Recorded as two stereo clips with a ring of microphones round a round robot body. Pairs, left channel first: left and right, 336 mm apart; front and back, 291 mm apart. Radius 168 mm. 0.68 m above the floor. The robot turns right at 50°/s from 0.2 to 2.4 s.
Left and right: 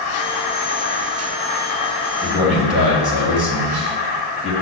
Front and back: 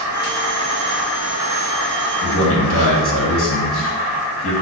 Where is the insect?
Straight behind, 1.9 m; by 4.6 s 70° right, 1.9 m.